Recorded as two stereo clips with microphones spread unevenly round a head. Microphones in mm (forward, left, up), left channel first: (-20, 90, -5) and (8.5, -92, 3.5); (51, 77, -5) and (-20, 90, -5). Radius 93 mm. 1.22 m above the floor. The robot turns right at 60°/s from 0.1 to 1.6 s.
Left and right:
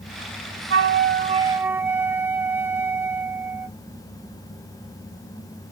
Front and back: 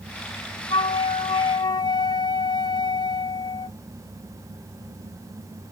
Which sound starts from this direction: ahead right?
A flute, at 0.7 s.